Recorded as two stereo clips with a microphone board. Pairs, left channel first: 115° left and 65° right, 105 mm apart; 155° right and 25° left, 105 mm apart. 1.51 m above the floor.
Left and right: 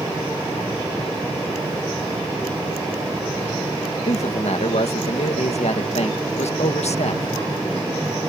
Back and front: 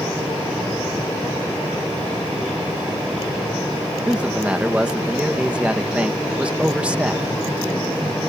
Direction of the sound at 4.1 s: 100° left.